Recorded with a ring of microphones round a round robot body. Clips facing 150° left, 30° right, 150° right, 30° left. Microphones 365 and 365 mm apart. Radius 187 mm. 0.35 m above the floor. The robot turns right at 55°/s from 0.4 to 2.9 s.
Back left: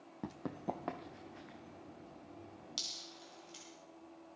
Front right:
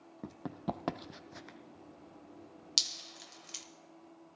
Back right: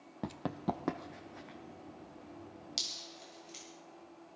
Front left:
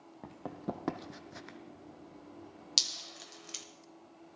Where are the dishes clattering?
I don't hear dishes clattering.